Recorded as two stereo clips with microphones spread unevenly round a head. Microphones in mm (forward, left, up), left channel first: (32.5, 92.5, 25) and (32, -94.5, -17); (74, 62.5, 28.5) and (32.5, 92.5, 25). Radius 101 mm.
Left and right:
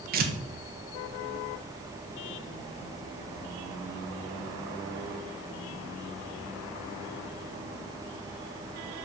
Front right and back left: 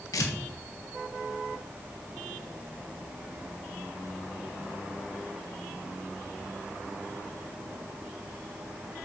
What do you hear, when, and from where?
0.1 s tearing paper: 50° right, 1.4 m